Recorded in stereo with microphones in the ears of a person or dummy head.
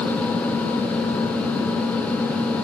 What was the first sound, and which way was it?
Only background noise.